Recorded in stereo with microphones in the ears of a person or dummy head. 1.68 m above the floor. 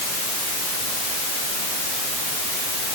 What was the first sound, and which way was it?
Only background noise.